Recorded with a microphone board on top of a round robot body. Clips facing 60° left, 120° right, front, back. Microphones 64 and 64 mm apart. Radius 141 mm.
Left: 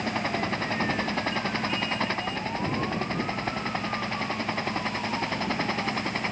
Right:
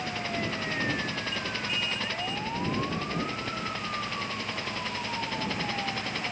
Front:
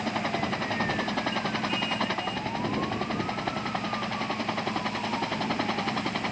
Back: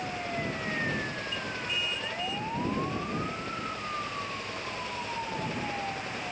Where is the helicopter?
10° left; by 6.3 s straight ahead.